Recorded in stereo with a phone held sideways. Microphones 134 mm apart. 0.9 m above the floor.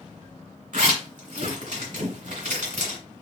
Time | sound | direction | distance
0.7 | a zipper | 75° right (ahead or behind) | 2 m